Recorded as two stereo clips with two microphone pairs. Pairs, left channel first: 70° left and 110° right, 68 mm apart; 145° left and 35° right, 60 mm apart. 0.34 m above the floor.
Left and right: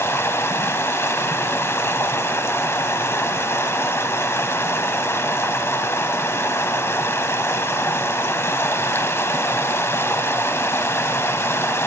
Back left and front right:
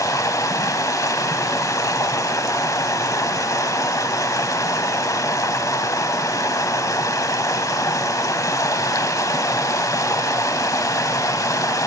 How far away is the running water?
About 0.9 m.